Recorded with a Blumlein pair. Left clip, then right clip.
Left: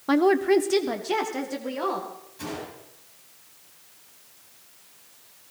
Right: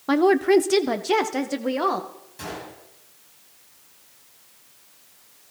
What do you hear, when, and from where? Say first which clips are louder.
0.1 s a woman speaking: right 2 dB; 5° right, 0.6 m; by 2.1 s 20° right, 2 m
2.4 s a gunshot: right 1 dB; 25° right, 9.5 m